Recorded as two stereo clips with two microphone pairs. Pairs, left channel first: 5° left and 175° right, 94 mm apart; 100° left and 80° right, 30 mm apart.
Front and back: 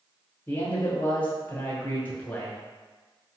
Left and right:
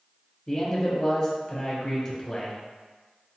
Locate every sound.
0.5 s a man speaking: 25° left, 1.1 m